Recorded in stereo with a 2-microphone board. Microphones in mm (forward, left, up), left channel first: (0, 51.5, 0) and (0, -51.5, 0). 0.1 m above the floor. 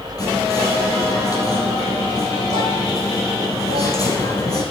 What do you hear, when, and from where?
0.2 s whispering: 35° left (ahead or behind), 3.5 m